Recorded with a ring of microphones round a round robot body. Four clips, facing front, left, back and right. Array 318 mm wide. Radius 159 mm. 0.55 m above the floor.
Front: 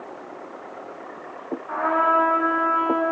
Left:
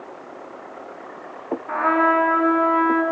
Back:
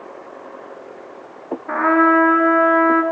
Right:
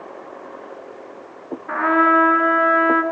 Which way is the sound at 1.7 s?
165° right.